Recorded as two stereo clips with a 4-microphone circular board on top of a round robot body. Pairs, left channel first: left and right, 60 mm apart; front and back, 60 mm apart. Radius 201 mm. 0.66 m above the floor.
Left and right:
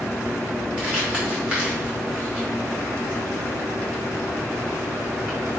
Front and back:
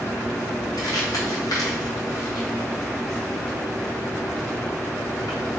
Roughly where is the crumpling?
Ahead.